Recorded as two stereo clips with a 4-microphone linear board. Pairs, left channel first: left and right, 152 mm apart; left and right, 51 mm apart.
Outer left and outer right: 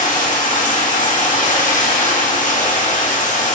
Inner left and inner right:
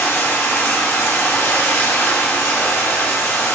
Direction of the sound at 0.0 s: 55° left (ahead or behind).